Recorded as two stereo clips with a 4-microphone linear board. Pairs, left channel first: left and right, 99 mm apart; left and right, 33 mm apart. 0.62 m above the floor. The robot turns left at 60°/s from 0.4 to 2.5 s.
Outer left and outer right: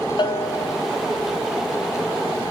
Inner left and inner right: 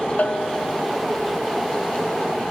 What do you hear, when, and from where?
0.2 s a bell: 50° left (ahead or behind), 0.9 m; by 0.8 s 25° left (ahead or behind), 0.9 m